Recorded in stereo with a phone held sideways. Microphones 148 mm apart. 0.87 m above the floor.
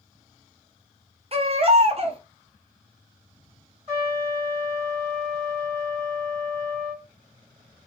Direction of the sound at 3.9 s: 45° right (ahead or behind).